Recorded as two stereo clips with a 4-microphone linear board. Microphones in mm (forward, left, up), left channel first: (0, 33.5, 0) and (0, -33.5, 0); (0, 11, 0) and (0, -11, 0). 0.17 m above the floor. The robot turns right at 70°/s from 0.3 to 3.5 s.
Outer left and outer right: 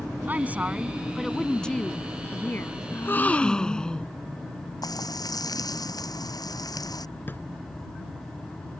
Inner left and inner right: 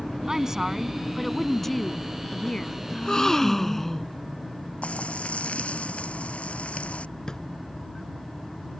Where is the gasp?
120° left; by 4.1 s 165° left.